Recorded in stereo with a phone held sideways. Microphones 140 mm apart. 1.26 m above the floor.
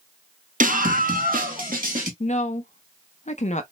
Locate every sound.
0.6 s a scream: 70° right (ahead or behind), 0.7 m; by 2.1 s 75° right (ahead or behind), 1.5 m
2.2 s a woman speaking: 55° left (ahead or behind), 0.7 m